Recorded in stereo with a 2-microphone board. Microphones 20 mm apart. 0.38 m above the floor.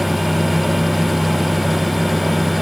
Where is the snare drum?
I don't hear a snare drum.